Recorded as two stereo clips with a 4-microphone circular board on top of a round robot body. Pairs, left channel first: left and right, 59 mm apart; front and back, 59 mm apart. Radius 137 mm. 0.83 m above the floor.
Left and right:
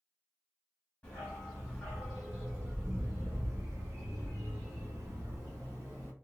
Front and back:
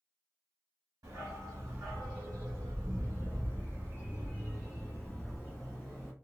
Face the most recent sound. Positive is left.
turn(degrees=-80)